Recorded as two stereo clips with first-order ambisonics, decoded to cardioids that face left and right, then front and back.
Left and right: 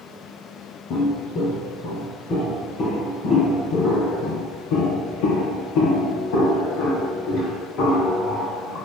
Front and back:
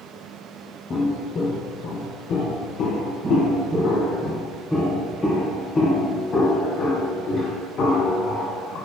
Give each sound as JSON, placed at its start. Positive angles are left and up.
{"t": 0.9, "sound": "footsteps", "azimuth_deg": 60, "distance_m": 1.5}
{"t": 3.2, "sound": "footsteps", "azimuth_deg": 105, "distance_m": 2.5}